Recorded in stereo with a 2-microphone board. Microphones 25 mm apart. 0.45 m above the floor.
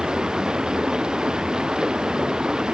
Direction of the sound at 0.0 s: 35° right (ahead or behind).